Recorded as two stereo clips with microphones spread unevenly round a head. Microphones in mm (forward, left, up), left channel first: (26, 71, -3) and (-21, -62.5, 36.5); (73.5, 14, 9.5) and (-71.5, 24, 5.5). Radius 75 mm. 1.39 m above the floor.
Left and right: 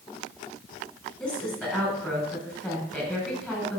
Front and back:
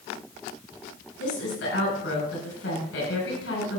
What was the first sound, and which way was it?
A woman speaking, 15° right.